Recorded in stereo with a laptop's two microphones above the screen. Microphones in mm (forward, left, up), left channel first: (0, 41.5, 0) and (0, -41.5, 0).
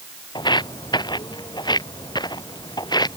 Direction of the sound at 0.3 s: 65° left (ahead or behind).